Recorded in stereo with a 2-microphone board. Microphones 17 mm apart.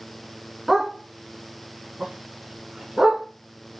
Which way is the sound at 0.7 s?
25° right (ahead or behind).